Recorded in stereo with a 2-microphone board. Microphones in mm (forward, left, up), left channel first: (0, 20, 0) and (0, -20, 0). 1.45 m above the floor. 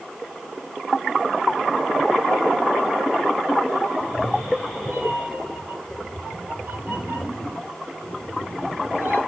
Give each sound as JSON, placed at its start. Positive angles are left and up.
{"t": 4.0, "sound": "a cat meowing", "side_deg": -70, "distance_m": 4.5}